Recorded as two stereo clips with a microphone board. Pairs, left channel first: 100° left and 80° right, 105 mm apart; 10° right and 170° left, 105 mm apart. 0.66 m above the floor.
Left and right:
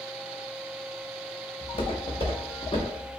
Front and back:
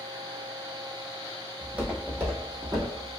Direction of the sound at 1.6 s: 85° left.